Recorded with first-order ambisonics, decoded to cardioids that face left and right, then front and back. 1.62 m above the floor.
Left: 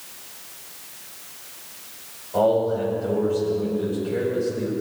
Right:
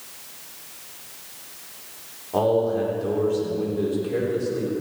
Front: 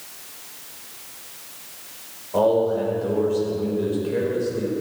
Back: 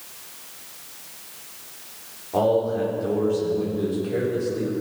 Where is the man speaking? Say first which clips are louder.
Left 1 dB, front 2 dB; 130° right, 4.5 m.